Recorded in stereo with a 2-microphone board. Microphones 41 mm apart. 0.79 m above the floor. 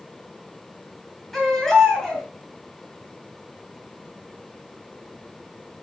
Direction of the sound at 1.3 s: 10° left (ahead or behind).